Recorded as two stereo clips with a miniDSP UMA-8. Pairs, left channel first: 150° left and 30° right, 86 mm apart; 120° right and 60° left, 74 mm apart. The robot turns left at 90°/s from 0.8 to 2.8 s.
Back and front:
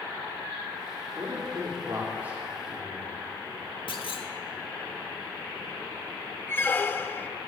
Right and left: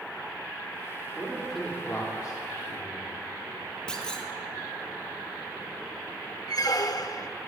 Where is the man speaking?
Straight ahead, 2.5 m; by 3.2 s 145° right, 2.5 m.